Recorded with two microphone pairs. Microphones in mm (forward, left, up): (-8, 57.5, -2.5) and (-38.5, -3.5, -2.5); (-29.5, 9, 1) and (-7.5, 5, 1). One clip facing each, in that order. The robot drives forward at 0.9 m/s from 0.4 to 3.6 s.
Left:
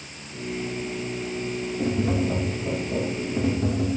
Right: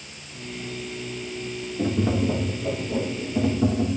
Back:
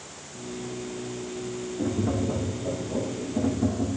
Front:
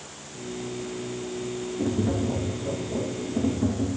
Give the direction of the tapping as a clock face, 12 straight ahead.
4 o'clock.